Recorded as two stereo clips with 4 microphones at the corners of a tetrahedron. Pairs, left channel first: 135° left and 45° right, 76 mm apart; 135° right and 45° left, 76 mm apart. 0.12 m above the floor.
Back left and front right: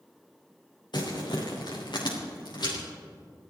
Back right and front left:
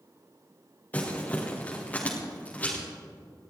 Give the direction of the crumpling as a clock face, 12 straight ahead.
7 o'clock.